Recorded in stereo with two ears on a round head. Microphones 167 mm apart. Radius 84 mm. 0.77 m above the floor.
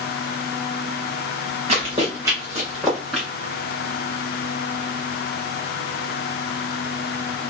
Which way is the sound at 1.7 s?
30° right (ahead or behind).